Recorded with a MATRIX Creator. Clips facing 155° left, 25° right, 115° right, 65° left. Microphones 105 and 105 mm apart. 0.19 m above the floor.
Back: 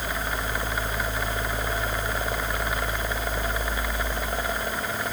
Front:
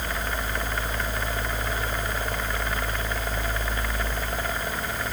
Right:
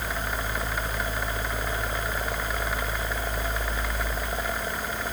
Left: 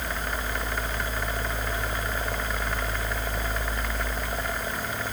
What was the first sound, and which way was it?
Only background noise.